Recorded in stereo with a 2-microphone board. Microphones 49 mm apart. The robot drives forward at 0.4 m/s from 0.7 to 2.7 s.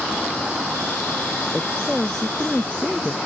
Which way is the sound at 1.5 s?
10° left (ahead or behind).